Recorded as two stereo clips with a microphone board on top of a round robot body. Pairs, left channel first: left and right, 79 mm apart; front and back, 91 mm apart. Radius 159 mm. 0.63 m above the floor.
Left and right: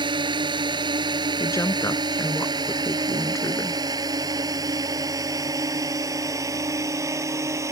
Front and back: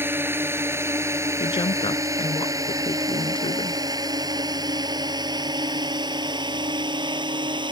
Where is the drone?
110° right; by 7.7 s 145° right.